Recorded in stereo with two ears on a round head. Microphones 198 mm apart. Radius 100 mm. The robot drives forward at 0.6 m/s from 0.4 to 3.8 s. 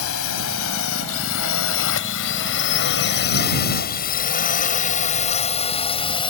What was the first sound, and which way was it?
A drone, 70° left (ahead or behind).